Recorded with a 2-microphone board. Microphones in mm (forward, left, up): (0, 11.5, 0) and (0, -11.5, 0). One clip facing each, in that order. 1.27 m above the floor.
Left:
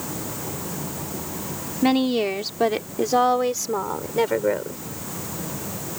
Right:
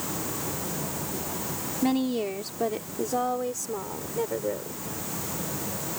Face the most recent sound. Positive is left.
turn(degrees=80)